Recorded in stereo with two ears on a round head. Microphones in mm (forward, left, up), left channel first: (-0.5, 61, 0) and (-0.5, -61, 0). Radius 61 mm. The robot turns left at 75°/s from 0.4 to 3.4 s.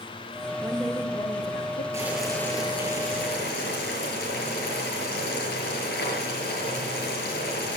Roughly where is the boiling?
Behind.